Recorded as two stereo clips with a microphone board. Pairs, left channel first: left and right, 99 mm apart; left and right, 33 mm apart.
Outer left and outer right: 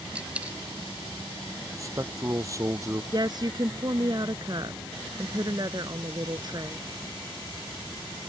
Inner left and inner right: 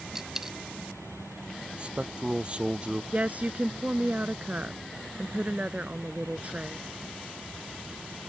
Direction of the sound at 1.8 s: 35° right (ahead or behind).